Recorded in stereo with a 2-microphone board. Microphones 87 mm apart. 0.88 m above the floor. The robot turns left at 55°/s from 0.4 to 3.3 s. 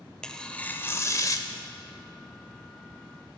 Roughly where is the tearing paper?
Behind.